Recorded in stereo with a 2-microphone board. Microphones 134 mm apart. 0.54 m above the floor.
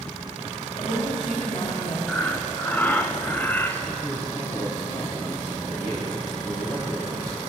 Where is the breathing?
15° left (ahead or behind), 0.7 m.